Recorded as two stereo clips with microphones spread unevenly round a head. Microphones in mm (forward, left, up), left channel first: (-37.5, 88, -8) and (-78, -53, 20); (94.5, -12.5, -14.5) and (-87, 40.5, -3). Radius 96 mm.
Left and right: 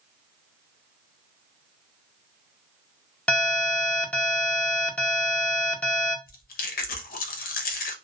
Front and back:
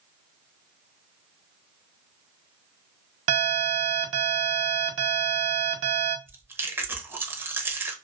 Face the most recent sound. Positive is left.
turn(degrees=90)